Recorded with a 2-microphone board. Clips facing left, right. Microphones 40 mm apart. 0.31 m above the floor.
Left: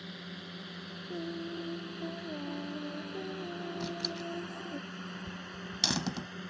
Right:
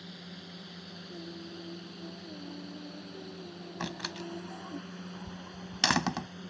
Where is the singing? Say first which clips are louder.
Left 7 dB; 60° left (ahead or behind).